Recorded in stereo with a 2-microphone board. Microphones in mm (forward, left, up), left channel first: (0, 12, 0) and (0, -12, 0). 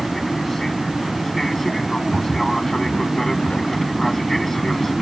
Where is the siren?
I don't hear a siren.